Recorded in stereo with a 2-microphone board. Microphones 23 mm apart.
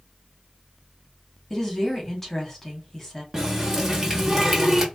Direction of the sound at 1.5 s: 20° left (ahead or behind).